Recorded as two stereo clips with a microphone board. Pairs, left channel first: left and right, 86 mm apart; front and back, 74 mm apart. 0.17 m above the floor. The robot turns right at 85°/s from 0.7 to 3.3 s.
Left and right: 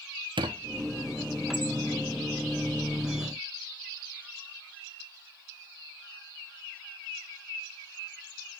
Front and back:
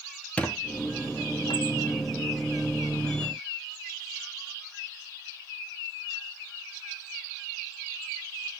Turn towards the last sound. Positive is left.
turn(degrees=150)